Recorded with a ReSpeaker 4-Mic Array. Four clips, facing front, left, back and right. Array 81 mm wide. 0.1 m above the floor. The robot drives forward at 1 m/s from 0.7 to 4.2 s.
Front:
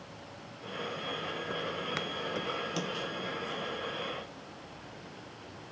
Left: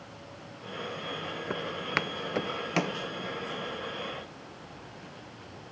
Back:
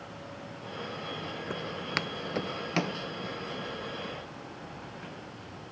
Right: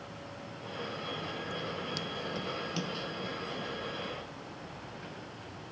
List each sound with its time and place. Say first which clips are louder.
1.5 s footsteps: left 9 dB, back 2 dB; 100° left; by 3.0 s 120° left